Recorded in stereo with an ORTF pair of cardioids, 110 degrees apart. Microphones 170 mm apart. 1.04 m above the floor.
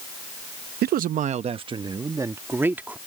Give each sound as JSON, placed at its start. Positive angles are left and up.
{"t": 0.8, "sound": "a man speaking", "azimuth_deg": -65}